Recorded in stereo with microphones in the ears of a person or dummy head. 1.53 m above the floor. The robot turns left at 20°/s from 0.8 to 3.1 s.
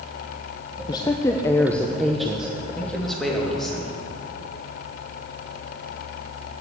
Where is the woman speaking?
25° left, 0.7 m; by 2.5 s 10° right, 0.7 m.